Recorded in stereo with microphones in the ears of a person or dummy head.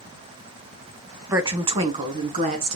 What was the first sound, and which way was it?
A woman speaking, 15° right (ahead or behind).